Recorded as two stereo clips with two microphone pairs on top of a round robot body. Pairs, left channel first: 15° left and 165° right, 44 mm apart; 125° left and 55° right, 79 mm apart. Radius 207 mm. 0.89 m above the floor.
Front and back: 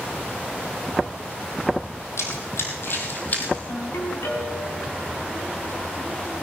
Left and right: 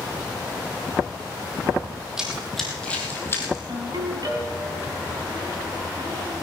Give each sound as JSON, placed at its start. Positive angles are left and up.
{"t": 2.2, "sound": "running footsteps", "azimuth_deg": 30, "distance_m": 2.5}
{"t": 3.7, "sound": "a ringtone", "azimuth_deg": -15, "distance_m": 3.5}